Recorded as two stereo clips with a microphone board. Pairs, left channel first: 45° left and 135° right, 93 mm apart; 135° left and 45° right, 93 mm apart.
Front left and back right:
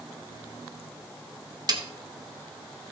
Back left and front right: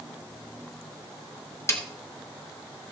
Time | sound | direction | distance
1.7 | a snare drum | 170° right | 1.1 m